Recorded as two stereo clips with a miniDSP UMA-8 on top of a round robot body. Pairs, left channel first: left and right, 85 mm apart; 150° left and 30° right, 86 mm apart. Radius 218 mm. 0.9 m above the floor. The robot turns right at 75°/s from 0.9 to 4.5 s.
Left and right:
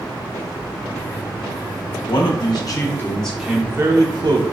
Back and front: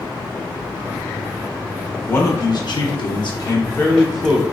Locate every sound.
2.1 s a man speaking: 85° left, 1.2 m; by 4.4 s 100° right, 1.2 m